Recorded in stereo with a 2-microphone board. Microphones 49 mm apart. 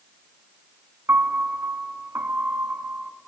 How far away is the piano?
About 0.7 m.